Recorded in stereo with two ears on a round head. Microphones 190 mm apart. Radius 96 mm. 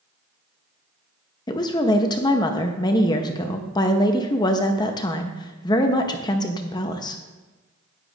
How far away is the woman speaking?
About 0.6 m.